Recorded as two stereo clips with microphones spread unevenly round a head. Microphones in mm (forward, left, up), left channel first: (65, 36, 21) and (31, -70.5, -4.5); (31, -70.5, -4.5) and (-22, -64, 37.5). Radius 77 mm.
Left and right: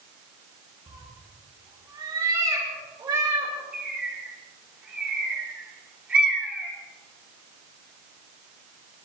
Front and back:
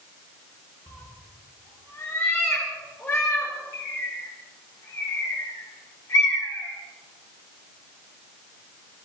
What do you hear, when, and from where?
0.9 s a cat meowing: 50° right, 8.5 m; by 3.5 s 60° right, 7.5 m
3.7 s a bird: 30° right, 5.5 m